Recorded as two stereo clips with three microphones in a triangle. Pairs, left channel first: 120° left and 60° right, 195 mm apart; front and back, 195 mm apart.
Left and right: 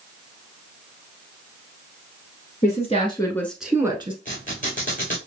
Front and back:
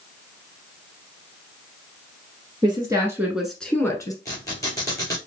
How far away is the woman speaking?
About 1.7 m.